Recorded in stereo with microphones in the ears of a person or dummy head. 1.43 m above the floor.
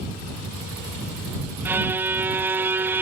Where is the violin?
10° right (ahead or behind).